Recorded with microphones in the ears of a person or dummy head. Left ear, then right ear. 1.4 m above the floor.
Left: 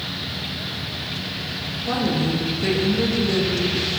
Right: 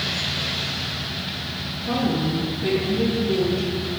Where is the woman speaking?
50° left (ahead or behind), 1.1 m.